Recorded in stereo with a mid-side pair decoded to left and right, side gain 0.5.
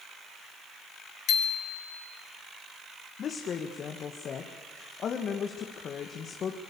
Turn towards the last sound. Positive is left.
turn(degrees=55)